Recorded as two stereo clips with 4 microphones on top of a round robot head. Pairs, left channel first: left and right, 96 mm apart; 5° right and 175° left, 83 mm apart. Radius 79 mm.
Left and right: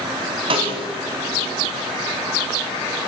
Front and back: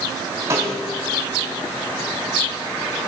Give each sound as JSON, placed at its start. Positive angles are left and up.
{"t": 0.5, "sound": "a snare drum", "azimuth_deg": -120, "distance_m": 1.8}